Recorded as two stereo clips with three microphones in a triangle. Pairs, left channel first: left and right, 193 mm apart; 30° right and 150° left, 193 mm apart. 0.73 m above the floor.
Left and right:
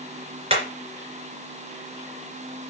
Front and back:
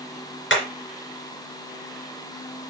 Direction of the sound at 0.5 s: 35° right.